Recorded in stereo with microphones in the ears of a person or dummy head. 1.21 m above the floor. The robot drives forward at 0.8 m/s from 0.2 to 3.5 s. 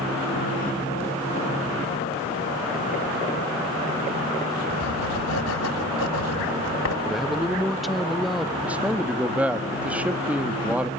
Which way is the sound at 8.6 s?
5° right (ahead or behind).